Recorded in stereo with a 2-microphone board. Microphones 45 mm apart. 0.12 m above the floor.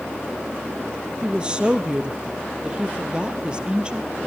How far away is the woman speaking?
About 2.5 m.